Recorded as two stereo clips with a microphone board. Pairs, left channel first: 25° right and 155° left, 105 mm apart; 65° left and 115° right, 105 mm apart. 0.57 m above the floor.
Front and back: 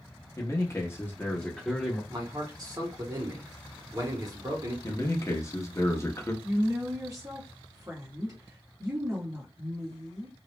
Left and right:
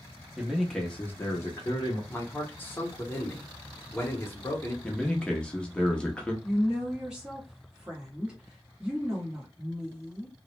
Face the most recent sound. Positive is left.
turn(degrees=170)